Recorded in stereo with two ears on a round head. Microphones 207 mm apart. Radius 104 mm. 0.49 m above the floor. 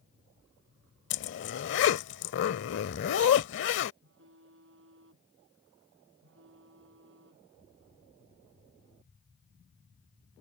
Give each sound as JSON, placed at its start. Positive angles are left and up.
{"t": 1.1, "sound": "a zipper", "side_deg": 55}
{"t": 4.0, "sound": "a phone buzzing", "side_deg": -60}